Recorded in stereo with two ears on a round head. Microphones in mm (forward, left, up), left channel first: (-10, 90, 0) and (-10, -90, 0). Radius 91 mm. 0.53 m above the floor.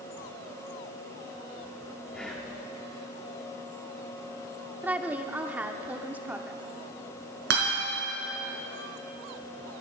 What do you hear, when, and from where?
2.1 s whispering: 5° left (ahead or behind), 0.8 m
4.8 s a woman speaking: 10° right (ahead or behind), 0.8 m
7.5 s a guitar: 60° right (ahead or behind), 4.5 m